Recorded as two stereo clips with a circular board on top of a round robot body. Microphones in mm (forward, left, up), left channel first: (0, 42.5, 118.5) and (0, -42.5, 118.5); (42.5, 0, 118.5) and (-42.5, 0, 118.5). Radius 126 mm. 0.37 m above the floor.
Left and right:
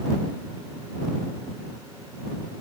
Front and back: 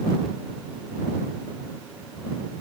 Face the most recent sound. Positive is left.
No sound to turn to.